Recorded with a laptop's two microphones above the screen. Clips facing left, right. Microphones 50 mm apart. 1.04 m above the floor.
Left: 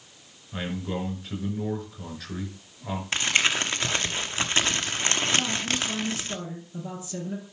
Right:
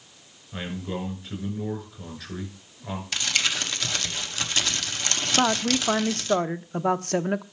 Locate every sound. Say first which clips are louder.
0.5 s a man speaking: left 1 dB; 5° left (ahead or behind), 6 m
3.1 s crumpling: left 3 dB; 30° left (ahead or behind), 0.9 m
5.4 s a woman speaking: right 5 dB; 65° right (ahead or behind), 0.8 m